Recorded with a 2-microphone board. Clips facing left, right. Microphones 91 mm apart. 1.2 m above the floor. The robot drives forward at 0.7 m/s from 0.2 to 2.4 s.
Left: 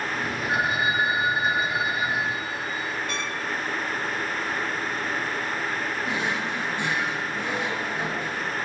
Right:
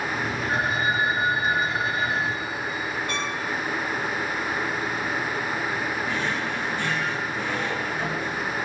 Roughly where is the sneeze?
I don't hear a sneeze.